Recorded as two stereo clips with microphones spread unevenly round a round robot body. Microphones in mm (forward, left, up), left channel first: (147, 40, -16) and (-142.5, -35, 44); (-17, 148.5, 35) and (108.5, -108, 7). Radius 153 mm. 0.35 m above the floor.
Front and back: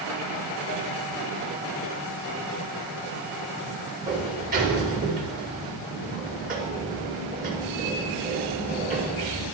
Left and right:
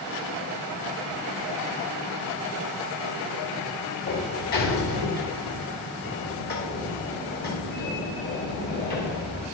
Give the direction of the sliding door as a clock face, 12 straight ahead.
7 o'clock.